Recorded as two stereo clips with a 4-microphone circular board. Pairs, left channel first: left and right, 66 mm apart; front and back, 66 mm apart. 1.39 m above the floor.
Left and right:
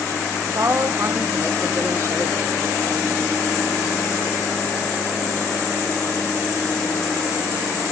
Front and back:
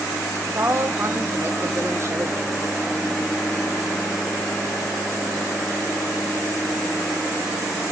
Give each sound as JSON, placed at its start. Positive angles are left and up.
{"t": 0.4, "sound": "a woman speaking", "azimuth_deg": -135, "distance_m": 1.4}